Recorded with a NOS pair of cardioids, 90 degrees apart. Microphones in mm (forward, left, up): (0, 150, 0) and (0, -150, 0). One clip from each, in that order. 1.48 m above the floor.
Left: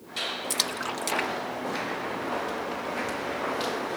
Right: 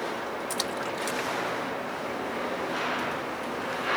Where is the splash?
40° left.